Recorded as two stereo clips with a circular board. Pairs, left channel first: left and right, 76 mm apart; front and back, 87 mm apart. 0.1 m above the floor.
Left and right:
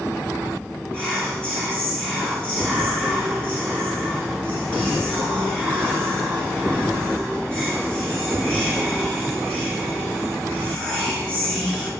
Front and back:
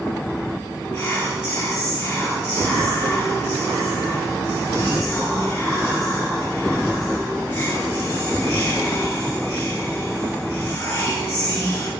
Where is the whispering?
25° left, 1.5 m.